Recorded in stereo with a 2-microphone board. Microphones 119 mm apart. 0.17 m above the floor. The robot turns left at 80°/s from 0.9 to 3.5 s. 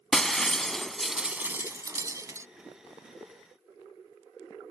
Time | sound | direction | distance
0.1 | breaking glass | 5° left (ahead or behind) | ?